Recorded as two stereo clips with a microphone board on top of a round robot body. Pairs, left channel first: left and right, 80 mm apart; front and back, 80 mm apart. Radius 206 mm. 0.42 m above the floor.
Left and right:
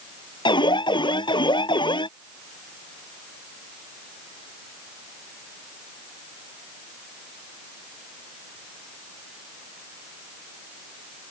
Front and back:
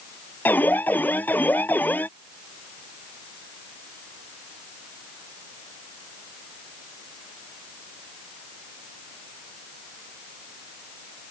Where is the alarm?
65° left.